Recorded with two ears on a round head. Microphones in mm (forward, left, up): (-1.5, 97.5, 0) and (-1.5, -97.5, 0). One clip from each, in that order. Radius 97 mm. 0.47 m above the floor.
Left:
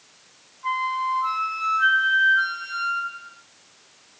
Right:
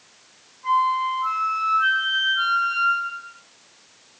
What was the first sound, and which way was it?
A flute, 25° left (ahead or behind).